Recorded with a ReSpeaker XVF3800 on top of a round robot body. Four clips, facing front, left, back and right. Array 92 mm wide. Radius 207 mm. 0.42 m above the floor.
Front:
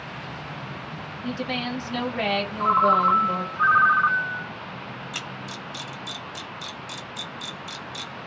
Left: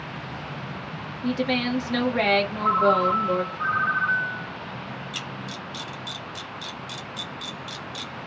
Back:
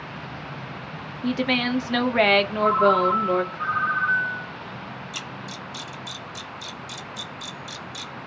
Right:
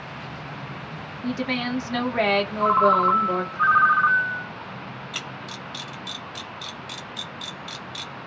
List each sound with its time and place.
1.2 s a woman speaking: 170° right, 1.2 m
2.6 s a ringtone: 55° right, 1.2 m
5.1 s a camera shutter: 55° right, 1.4 m